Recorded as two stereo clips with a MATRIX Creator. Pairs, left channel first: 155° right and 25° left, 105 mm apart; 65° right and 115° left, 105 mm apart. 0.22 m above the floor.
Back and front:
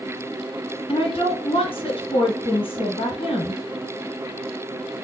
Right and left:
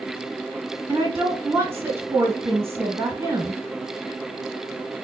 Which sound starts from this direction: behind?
A woman speaking, at 0.9 s.